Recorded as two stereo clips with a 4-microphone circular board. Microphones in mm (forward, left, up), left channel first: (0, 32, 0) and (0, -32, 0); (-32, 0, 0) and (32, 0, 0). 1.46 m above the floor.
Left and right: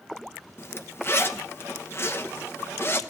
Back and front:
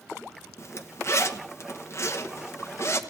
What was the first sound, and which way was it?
A zipper, 140° left.